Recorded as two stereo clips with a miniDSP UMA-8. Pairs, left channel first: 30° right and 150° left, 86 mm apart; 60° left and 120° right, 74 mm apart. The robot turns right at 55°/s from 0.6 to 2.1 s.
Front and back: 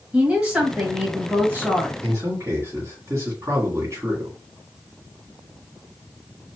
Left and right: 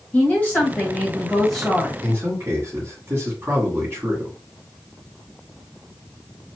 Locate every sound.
0.1 s a woman speaking: 90° left, 1.5 m; by 1.9 s 160° left, 1.5 m
2.0 s a man speaking: 170° right, 1.9 m; by 4.4 s 165° right, 1.9 m